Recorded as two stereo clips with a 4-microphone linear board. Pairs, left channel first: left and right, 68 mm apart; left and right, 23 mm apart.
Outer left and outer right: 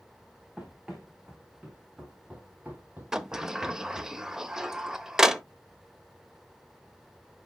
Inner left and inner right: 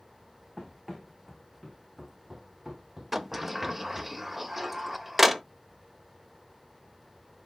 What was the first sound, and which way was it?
Running footsteps, 5° right (ahead or behind).